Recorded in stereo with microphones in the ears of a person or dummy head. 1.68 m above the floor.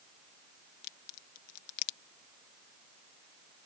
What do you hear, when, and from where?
0.8 s a crack: 50° left (ahead or behind)